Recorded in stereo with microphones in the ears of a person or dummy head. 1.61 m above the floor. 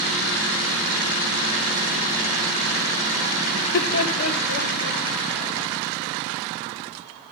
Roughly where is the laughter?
Left.